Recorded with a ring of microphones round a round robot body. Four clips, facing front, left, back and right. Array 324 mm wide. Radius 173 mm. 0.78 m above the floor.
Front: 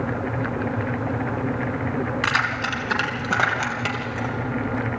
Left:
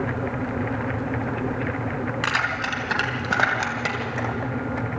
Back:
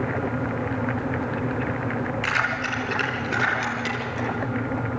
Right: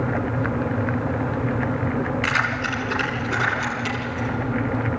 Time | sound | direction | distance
2.2 | keys jangling | 40° left | 4 m